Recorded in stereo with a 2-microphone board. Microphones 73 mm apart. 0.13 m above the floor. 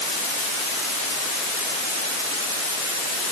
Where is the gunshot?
I don't hear a gunshot.